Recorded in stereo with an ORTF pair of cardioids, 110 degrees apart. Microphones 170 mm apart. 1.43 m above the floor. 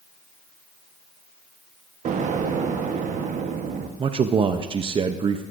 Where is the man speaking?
35° right, 0.7 m.